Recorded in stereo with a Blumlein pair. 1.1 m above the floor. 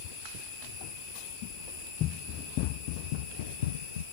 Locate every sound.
2.0 s running footsteps: 35° left; by 4.0 s 65° left